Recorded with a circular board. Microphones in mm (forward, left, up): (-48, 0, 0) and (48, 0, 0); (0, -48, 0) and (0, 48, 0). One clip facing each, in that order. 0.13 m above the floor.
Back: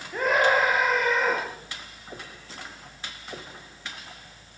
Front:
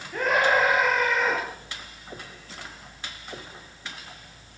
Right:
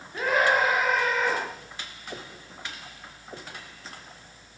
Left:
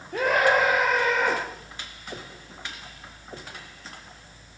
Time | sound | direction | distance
0.1 | a scream | 95° left | 8.5 m